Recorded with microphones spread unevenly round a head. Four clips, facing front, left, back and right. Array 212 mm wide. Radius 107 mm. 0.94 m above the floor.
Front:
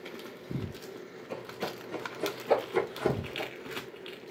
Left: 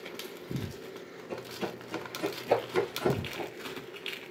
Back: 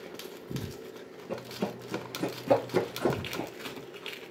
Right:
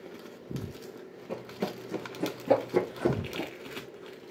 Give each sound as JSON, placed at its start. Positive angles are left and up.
{"t": 1.3, "sound": "running footsteps", "azimuth_deg": -125, "distance_m": 3.5}